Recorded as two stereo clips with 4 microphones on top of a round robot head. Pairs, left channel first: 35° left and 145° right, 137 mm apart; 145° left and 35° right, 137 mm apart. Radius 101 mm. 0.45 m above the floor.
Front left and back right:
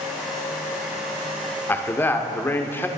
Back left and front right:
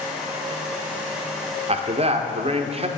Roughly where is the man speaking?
Ahead right.